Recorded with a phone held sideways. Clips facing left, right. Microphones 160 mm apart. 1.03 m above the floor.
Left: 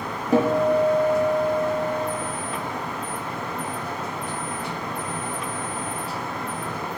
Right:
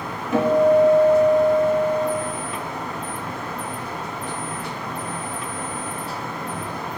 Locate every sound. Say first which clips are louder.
0.3 s a guitar: right 3 dB; 35° left (ahead or behind), 1.3 m